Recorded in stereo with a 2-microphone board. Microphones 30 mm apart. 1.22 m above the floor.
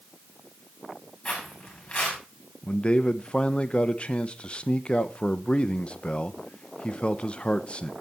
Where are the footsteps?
40° left (ahead or behind), 6.5 m.